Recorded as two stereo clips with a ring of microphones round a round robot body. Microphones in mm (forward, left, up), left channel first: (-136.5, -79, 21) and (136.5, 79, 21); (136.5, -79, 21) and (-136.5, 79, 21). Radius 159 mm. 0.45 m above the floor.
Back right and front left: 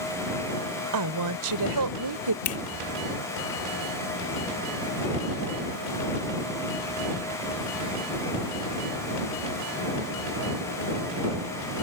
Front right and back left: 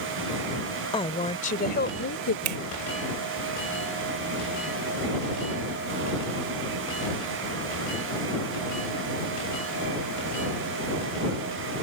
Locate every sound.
0.9 s a woman speaking: 40° left; by 2.4 s 15° left
2.5 s a finger snap: 170° left